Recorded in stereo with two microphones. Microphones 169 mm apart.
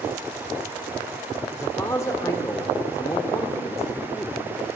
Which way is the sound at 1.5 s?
20° left (ahead or behind).